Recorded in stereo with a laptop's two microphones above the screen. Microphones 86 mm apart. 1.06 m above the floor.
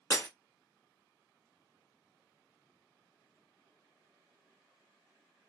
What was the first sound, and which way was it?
Breaking glass, 25° left (ahead or behind).